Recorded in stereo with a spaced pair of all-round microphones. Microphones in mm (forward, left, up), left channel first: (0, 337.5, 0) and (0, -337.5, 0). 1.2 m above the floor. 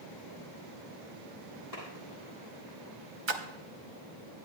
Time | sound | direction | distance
1.7 | a clap | 85° left | 7.5 m
3.3 | a splash | 45° right (ahead or behind) | 0.8 m